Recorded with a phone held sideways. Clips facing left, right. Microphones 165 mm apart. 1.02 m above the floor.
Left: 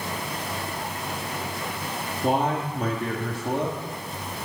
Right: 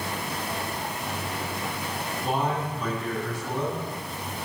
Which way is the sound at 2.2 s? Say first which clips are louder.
Left 4 dB; 65° left (ahead or behind).